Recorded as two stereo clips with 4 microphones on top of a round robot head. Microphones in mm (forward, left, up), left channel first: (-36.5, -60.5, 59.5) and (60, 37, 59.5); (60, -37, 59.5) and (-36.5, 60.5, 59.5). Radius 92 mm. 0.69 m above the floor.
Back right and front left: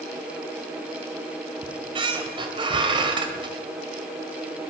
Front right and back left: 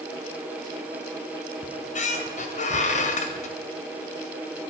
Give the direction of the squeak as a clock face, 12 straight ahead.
12 o'clock.